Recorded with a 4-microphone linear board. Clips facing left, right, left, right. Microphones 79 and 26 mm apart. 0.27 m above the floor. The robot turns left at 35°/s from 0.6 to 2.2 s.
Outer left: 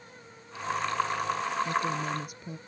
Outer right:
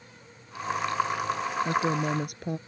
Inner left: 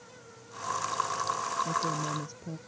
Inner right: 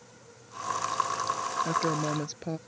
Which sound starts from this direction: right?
A woman speaking, at 1.6 s.